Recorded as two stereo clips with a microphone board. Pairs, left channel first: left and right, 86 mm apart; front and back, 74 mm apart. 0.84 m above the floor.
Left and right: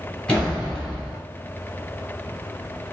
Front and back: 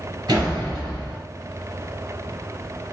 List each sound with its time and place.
0.3 s a door slam: 165° left, 1.9 m